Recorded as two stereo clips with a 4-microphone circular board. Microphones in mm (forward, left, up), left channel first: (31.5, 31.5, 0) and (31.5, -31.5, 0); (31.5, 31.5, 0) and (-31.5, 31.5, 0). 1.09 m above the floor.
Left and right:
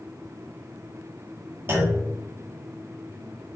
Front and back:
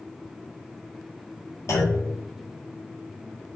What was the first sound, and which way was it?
A clunk, 40° right.